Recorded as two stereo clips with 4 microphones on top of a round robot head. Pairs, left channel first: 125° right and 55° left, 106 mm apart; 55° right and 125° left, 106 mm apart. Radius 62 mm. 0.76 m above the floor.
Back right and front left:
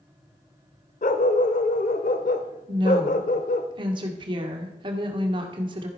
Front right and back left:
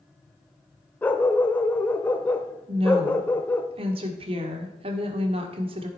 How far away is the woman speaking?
About 1.8 m.